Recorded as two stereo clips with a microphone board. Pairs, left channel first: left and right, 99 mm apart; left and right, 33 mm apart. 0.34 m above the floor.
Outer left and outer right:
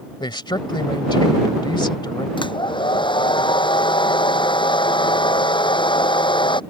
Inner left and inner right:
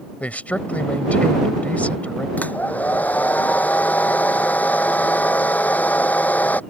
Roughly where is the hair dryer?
Left.